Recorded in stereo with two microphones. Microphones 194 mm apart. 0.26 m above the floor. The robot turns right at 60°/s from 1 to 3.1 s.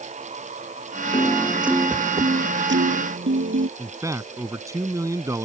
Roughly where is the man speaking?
Centre.